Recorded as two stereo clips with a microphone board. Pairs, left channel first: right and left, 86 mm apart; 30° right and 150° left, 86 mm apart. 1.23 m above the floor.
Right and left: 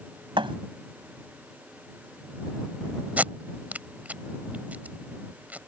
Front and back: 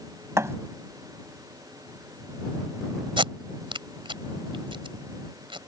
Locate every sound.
0.4 s a thud: 90° left
3.2 s tape being pulled: 160° left